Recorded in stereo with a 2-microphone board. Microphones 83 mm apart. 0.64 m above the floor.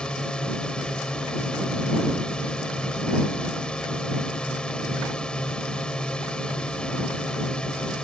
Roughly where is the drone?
Centre.